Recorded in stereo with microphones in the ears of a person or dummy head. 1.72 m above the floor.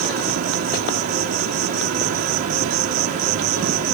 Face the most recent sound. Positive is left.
turn(degrees=-45)  # may be behind; listen again after turning